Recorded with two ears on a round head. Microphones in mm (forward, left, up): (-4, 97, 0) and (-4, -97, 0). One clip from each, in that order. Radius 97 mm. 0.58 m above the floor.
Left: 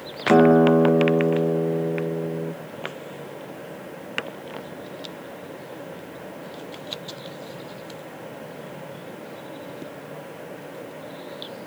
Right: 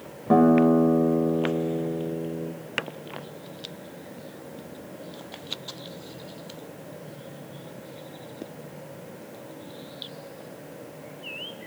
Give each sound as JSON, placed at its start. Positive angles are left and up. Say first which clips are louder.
{"t": 0.3, "sound": "a guitar", "louder": "left 4 dB", "side_deg": 70, "distance_m": 1.2}